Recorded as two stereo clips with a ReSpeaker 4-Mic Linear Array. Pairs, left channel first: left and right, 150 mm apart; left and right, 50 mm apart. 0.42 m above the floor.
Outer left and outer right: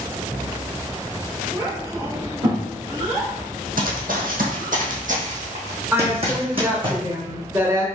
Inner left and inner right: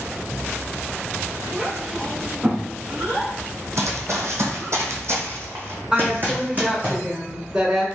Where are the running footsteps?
70° right (ahead or behind), 1.2 m; by 6.9 s 35° right (ahead or behind), 1.8 m.